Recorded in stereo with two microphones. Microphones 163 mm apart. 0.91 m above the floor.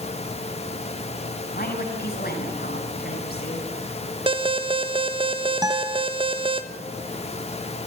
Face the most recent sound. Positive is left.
turn(degrees=-25)  # may be behind; listen again after turning